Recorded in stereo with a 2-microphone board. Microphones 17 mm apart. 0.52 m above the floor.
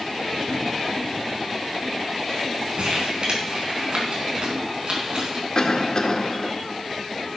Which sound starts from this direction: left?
A cough, at 5.5 s.